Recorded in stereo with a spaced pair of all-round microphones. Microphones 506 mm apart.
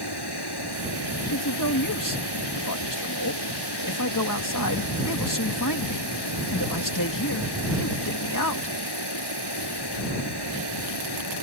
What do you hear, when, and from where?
0.0 s running water: 50° left (ahead or behind)
1.3 s a man speaking: 40° left (ahead or behind)